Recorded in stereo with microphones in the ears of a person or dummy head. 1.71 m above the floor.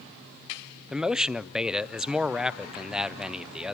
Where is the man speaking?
Centre (ahead or behind), 0.6 m.